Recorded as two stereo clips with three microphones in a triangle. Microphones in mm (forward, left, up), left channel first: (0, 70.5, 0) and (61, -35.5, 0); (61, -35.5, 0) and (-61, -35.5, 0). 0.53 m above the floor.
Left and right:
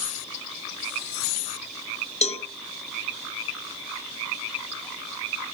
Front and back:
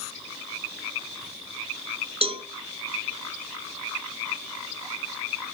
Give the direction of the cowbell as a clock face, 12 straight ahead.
7 o'clock.